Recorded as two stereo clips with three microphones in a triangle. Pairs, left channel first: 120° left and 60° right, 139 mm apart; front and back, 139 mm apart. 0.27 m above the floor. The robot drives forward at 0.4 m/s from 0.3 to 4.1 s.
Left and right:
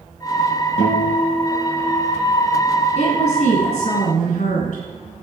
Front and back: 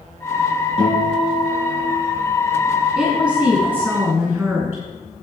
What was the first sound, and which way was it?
A guitar, 150° left.